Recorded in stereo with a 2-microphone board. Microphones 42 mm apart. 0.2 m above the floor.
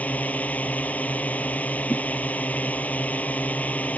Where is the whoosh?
70° left (ahead or behind).